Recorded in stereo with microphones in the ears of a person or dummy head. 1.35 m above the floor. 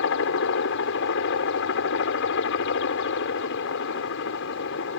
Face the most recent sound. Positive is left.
turn(degrees=65)  # may be behind; listen again after turning